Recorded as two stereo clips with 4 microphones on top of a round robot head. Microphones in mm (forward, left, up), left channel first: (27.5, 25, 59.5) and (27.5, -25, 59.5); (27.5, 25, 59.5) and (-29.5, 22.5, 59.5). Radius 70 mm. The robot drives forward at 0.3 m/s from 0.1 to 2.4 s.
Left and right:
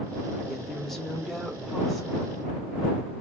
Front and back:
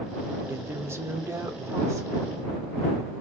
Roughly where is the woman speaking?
Behind.